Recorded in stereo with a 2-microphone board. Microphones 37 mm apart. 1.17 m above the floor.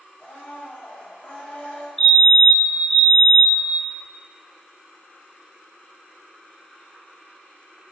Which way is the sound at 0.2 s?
45° left (ahead or behind).